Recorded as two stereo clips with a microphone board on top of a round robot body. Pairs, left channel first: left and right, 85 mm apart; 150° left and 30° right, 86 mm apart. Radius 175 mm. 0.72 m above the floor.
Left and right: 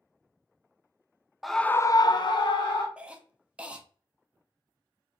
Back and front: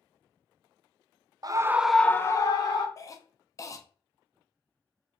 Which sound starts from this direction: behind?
A cough, at 3.0 s.